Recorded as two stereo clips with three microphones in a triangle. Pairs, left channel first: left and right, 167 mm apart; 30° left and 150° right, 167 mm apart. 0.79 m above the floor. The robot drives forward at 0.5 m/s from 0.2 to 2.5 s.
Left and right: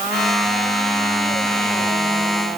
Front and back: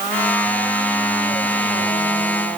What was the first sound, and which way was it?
Only background noise.